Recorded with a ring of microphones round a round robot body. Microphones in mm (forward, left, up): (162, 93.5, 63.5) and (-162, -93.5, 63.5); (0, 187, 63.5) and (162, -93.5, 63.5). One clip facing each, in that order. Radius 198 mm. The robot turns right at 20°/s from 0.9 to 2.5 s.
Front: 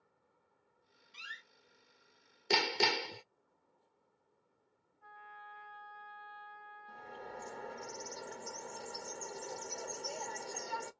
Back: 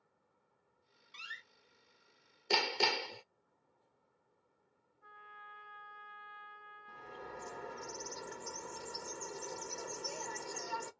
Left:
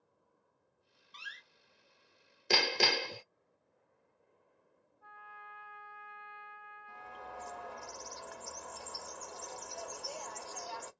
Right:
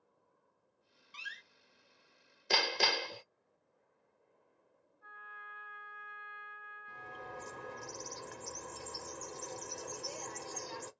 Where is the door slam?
80° right, 0.7 m; by 1.4 s 70° right, 0.7 m.